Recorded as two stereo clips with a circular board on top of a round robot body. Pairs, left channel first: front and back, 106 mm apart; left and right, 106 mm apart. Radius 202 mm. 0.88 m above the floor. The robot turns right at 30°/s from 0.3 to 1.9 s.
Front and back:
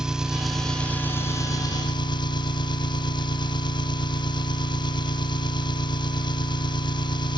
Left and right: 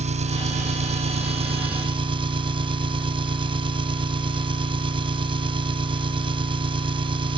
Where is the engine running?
95° right; by 7.4 s 50° right.